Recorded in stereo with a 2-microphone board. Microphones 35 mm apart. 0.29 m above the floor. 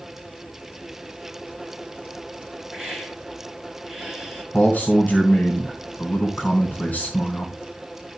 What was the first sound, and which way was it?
A hiss, 10° right (ahead or behind).